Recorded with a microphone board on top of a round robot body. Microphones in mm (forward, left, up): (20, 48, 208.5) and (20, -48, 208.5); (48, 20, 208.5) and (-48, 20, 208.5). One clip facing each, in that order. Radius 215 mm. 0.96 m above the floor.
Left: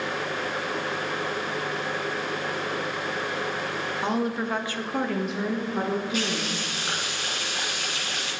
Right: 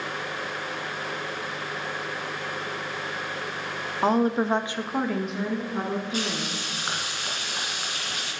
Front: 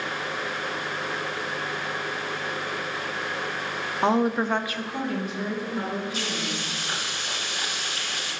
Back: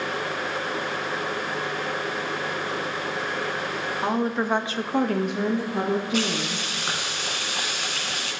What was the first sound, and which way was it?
A woman speaking, 55° right.